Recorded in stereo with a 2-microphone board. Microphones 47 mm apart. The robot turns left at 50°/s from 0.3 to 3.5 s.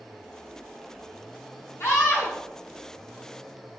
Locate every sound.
1.8 s a scream: 65° left (ahead or behind), 4.5 m; by 2.4 s 70° left (ahead or behind), 4.5 m